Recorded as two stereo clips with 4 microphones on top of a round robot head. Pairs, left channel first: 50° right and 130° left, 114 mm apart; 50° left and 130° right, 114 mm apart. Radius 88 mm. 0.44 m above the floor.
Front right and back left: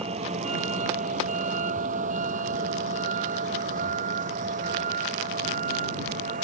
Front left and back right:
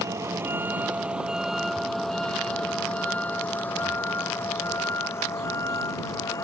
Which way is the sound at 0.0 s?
165° left.